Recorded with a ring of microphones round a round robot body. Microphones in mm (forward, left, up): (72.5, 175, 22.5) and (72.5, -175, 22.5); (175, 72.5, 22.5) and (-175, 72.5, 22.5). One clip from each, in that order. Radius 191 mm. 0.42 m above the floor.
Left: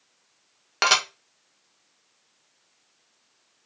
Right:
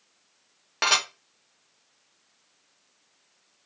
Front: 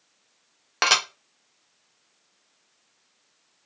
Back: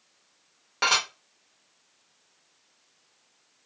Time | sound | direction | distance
0.8 | dishes clattering | 30° left | 0.6 m